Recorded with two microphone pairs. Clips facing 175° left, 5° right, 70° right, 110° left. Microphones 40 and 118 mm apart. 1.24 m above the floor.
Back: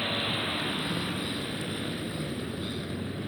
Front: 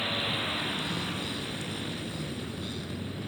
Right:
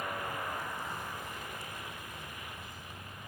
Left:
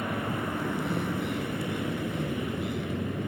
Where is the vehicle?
100° left.